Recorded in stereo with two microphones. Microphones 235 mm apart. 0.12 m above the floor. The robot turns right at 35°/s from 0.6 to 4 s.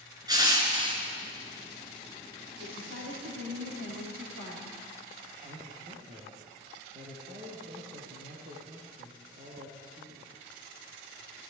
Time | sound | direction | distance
0.3 | crushing | 15° right (ahead or behind) | 1.9 m
2.6 | a woman speaking | 130° right | 5.5 m
5.4 | a man speaking | 35° right (ahead or behind) | 3 m